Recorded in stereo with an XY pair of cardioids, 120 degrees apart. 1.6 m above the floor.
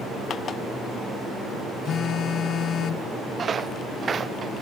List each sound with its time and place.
1.9 s a phone buzzing: 55° left
3.4 s footsteps: 35° right